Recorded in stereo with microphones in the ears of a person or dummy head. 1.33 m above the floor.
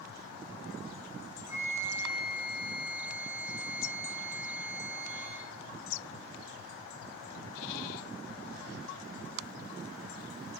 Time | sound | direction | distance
1.5 | a flute | 15° right (ahead or behind) | 0.8 m